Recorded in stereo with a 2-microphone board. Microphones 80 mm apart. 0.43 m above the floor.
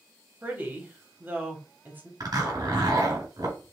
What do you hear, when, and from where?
0.4 s a woman speaking: 20° right (ahead or behind), 1.4 m
2.2 s a zipper: 55° right (ahead or behind), 3.5 m